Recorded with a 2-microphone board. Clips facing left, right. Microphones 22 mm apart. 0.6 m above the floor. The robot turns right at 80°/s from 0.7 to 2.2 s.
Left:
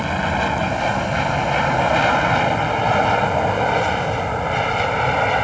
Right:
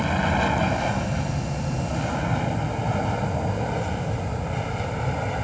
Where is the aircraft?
15° left (ahead or behind); by 5.5 s 45° left (ahead or behind).